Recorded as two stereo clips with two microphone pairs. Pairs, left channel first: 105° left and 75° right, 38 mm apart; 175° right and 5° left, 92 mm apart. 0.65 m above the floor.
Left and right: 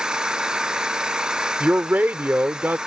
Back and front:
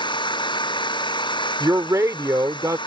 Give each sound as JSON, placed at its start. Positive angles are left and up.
{"t": 0.0, "sound": "an engine running", "azimuth_deg": -145}
{"t": 1.6, "sound": "a man speaking", "azimuth_deg": -45}